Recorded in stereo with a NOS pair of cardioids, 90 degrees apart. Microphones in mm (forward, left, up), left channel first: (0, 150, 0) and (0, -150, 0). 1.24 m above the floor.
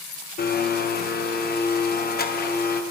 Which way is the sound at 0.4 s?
30° left.